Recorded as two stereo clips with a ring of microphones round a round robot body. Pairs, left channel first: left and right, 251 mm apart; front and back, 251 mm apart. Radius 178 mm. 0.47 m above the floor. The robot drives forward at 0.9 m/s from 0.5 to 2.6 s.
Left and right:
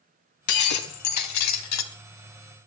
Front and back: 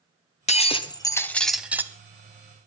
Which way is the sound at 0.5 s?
65° left.